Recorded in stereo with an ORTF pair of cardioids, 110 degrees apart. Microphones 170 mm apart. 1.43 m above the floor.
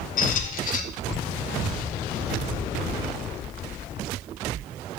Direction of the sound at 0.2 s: 55° left.